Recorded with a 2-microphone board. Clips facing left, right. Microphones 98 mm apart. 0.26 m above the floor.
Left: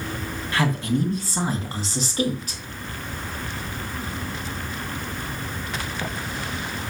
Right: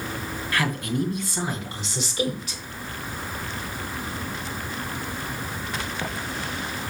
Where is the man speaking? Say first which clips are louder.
Left 3 dB; 25° left (ahead or behind), 2.5 m; by 2.6 s 45° left (ahead or behind), 3 m.